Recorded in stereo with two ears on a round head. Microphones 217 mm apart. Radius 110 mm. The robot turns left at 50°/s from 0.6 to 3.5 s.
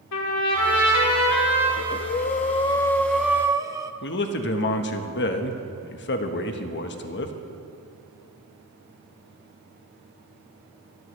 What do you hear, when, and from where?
0.1 s a trumpet: 90° left, 3.5 m; by 1.7 s 40° left, 3.5 m
1.8 s breathing: 70° left, 0.6 m; by 3.9 s 15° right, 0.6 m
4.0 s a man speaking: 50° left (ahead or behind), 1.3 m